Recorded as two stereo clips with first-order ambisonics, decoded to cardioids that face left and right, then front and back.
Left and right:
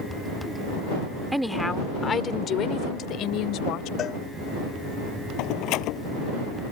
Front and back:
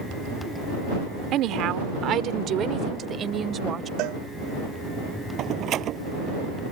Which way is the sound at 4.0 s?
145° left.